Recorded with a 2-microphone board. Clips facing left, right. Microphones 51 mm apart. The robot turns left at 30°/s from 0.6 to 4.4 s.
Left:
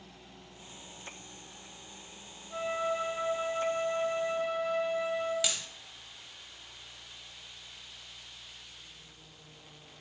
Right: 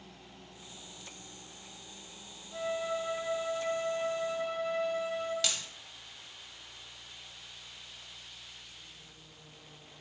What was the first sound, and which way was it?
A flute, 80° left.